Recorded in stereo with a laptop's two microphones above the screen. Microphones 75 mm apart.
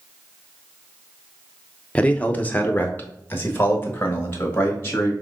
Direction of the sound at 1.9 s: 15° left (ahead or behind).